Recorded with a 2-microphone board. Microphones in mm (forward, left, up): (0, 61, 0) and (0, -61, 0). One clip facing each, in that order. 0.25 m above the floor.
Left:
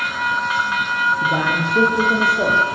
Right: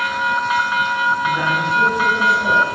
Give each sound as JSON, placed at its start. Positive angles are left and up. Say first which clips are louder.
{"t": 1.2, "sound": "a man speaking", "louder": "right 1 dB", "side_deg": 75, "distance_m": 8.5}